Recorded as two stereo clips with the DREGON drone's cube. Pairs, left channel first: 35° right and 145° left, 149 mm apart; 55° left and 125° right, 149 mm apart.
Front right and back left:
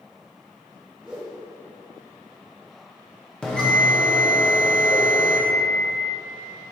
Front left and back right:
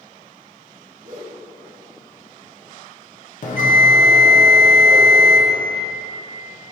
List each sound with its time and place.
1.0 s a whoosh: 130° right, 1.8 m
3.4 s a bell: 50° left, 1.3 m